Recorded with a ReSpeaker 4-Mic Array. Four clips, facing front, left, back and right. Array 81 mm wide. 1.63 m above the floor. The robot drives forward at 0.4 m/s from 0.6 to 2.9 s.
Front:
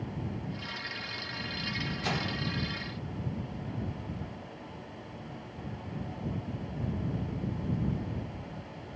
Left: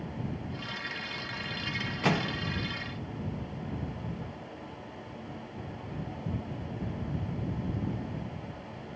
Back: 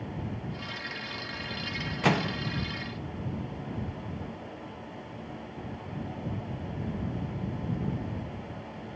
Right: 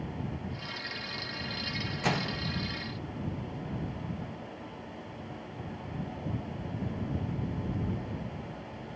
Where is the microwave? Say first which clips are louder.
Left 3 dB, back 9 dB; 160° left, 0.5 m; by 2.4 s 165° left, 0.6 m.